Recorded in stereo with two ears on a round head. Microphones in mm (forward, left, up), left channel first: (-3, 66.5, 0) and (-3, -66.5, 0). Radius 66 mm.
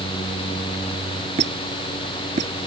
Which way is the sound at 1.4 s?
50° right (ahead or behind).